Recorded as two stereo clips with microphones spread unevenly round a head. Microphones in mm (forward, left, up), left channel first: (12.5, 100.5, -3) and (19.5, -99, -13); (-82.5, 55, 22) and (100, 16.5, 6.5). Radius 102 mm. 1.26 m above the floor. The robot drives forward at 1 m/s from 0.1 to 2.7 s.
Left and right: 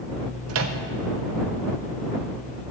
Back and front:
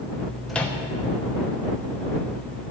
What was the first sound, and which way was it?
A microwave, 100° right.